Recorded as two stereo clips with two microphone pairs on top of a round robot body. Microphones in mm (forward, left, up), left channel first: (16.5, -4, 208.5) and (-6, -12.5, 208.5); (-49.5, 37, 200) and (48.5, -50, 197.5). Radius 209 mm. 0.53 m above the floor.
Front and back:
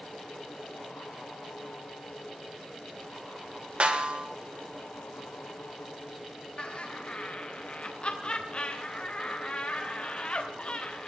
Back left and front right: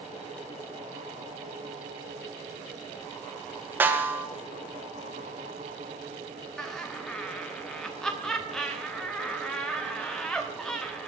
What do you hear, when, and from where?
3.8 s a snare drum: 115° right, 2 m
6.6 s laughter: 50° left, 1.4 m